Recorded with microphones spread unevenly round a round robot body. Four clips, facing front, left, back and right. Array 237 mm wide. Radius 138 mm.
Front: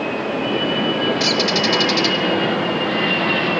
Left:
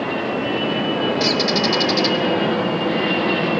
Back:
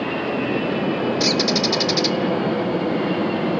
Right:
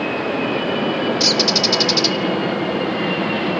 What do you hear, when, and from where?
1.2 s a bird: 135° right, 0.6 m